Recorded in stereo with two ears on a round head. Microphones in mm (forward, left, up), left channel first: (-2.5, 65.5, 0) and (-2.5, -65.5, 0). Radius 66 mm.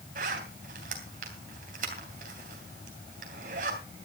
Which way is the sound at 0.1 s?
60° right (ahead or behind).